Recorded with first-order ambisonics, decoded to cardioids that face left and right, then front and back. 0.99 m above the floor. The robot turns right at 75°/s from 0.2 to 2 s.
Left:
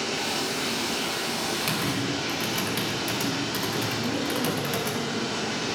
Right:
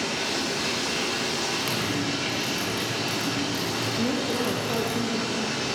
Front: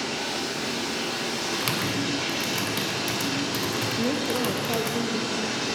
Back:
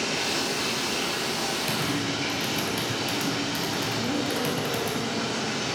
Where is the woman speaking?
30° right, 1.3 m.